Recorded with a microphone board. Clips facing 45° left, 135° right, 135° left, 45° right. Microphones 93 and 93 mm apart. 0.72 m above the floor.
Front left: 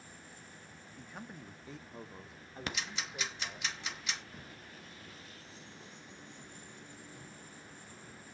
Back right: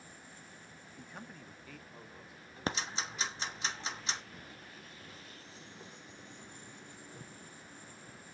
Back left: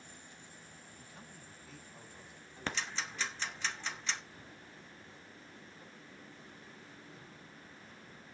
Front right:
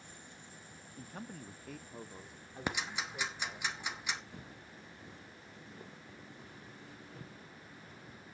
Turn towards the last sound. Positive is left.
turn(degrees=-85)